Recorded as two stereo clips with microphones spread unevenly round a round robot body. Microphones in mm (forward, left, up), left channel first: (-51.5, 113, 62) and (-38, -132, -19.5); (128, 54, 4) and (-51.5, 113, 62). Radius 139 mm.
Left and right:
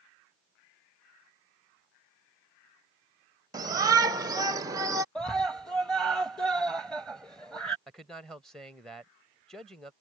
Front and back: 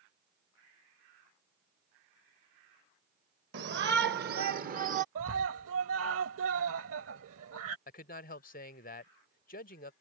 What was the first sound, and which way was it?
A shout, 150° right.